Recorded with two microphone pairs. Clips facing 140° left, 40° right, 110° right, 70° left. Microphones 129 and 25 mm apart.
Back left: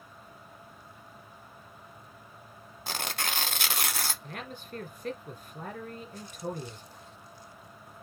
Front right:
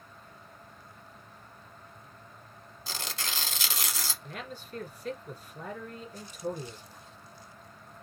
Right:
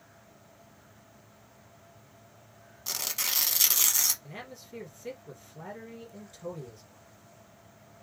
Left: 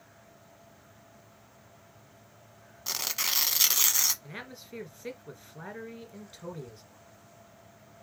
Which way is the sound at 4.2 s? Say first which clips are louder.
Even, left 1 dB; 110° left.